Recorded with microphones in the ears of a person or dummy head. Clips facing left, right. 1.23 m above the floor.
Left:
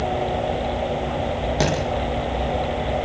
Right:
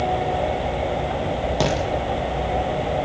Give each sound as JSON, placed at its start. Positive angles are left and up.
{"t": 1.6, "sound": "a thud", "side_deg": 0, "distance_m": 7.5}